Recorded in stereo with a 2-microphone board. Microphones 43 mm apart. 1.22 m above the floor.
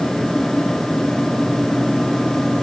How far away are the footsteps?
I don't hear footsteps.